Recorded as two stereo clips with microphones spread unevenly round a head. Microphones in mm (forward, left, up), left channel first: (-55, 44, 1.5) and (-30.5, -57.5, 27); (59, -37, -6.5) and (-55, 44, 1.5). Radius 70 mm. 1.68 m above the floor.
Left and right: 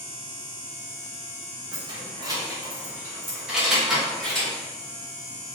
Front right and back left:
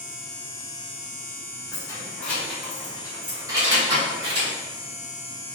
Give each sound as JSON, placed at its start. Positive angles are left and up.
{"t": 1.7, "sound": "keys jangling", "azimuth_deg": -100, "distance_m": 1.4}